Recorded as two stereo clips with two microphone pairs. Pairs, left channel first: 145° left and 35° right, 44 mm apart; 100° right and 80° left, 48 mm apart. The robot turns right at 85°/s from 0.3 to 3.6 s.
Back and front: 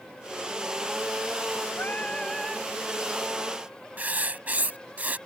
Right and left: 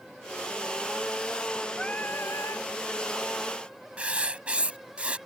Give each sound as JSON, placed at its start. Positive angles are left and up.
{"t": 1.8, "sound": "singing", "azimuth_deg": -170}
{"t": 4.0, "sound": "writing", "azimuth_deg": 20}